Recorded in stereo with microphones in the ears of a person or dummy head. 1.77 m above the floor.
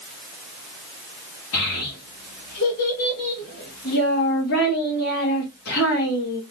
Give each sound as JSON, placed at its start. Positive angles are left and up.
{"t": 1.5, "sound": "a child speaking", "side_deg": 70, "distance_m": 2.0}